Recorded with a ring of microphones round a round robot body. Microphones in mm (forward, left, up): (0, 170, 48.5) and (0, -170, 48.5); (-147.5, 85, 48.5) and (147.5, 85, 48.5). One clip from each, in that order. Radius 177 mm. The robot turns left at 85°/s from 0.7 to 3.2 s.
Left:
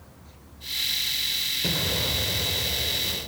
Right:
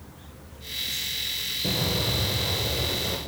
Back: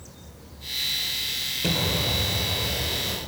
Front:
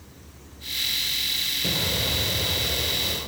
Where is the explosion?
95° left, 1.2 m; by 3.2 s 35° right, 1.2 m.